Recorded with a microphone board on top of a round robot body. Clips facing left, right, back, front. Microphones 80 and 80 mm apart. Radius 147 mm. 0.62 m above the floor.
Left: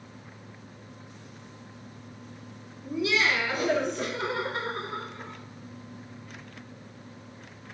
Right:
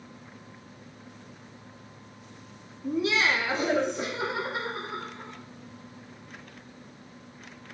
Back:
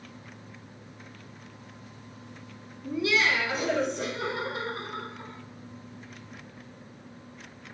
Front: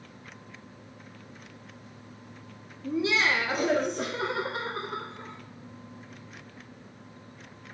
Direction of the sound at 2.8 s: 65° right.